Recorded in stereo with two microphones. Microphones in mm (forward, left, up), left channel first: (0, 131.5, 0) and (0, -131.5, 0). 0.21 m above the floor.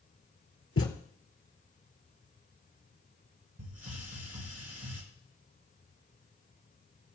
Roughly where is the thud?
Left.